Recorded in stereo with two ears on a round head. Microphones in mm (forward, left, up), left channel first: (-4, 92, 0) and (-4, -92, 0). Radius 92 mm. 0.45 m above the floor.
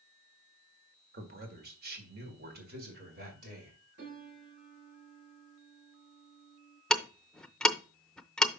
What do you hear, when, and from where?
1.1 s a man speaking: 45° right (ahead or behind), 1.7 m
4.0 s a piano: 55° right (ahead or behind), 5 m
6.9 s ticking: 5° left (ahead or behind), 0.6 m